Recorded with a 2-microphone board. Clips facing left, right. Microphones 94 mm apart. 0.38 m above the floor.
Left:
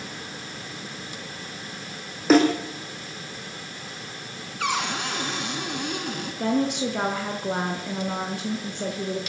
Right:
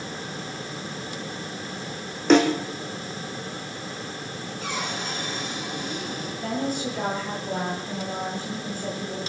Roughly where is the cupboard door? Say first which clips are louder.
Left 5 dB; left.